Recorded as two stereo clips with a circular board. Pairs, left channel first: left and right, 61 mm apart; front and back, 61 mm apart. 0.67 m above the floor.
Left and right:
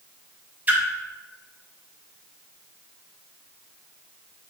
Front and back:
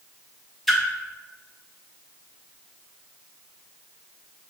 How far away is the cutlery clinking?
I don't hear cutlery clinking.